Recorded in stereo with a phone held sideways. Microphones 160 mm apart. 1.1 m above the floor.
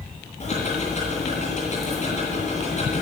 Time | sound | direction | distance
0.4 | ticking | 45° left (ahead or behind) | 10 m